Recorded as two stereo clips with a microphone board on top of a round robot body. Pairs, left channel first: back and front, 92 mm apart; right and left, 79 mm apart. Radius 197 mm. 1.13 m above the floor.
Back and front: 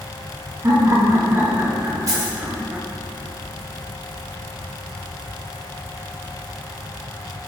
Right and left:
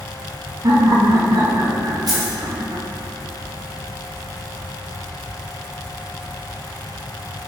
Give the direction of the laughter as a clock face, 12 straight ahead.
10 o'clock.